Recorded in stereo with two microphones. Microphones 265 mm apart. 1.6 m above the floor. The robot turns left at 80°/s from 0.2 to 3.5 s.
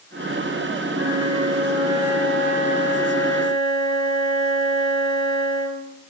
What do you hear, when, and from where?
0.9 s a flute: 85° right, 2.5 m; by 5.9 s 70° left, 2.5 m